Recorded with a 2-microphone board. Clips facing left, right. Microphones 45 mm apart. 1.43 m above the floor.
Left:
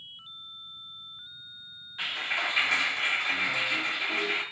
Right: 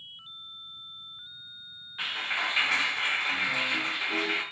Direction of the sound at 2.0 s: 5° right (ahead or behind).